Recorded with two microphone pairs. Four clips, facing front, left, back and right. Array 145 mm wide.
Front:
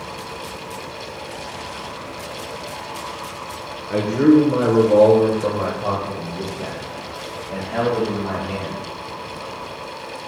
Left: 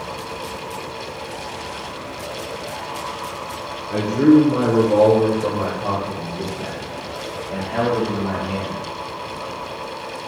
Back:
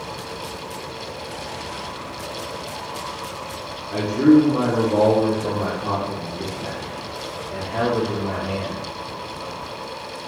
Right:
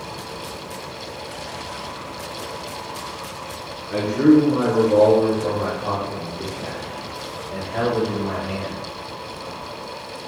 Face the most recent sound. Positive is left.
turn(degrees=35)